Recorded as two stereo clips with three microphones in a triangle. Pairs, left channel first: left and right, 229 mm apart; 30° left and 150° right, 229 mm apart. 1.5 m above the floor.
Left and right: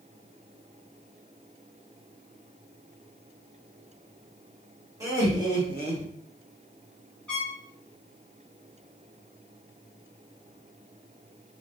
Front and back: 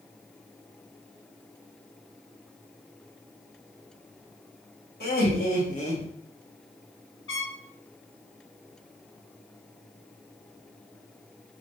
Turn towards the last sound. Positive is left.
turn(degrees=5)